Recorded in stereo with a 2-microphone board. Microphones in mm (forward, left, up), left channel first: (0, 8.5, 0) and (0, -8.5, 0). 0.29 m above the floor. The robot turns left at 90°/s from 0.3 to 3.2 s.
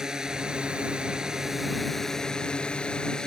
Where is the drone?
45° right; by 3.3 s 55° left.